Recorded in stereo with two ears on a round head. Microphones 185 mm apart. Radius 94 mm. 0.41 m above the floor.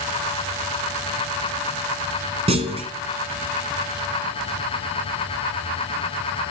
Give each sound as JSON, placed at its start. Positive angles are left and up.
{"t": 2.5, "sound": "a clunk", "side_deg": -30, "distance_m": 1.0}